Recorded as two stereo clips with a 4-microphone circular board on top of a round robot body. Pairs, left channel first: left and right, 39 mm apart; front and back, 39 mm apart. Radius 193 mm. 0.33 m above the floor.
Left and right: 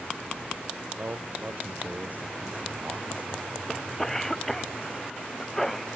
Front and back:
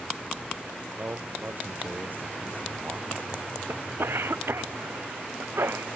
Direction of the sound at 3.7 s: 175° left.